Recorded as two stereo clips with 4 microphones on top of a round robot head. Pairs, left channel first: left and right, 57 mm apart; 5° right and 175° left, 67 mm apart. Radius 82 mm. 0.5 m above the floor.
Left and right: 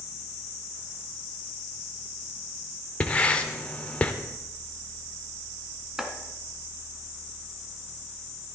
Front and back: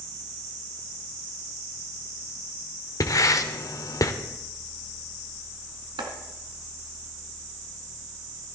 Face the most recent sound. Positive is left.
turn(degrees=-175)